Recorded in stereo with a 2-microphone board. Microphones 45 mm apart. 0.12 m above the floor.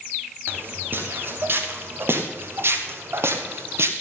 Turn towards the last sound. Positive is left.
turn(degrees=-80)